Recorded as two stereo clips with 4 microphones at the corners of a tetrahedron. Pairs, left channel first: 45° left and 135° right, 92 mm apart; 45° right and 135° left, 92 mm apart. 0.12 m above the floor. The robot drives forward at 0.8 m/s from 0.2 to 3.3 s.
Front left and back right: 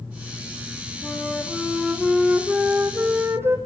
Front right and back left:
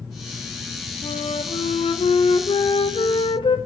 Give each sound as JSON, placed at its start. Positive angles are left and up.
{"t": 1.0, "sound": "a flute", "azimuth_deg": -35, "distance_m": 3.0}